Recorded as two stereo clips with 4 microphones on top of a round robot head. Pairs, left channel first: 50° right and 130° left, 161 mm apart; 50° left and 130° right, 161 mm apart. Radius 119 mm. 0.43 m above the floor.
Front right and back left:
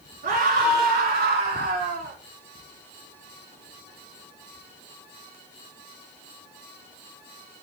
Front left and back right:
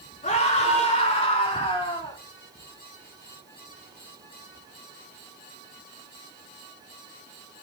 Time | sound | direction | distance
0.2 | a scream | 95° left | 5.5 m